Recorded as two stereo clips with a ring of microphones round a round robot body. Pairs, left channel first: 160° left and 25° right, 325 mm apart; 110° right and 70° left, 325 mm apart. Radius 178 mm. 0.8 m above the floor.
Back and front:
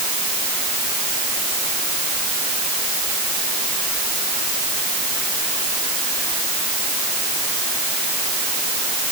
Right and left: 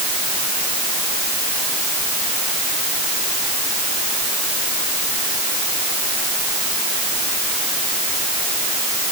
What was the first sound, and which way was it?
Only background noise.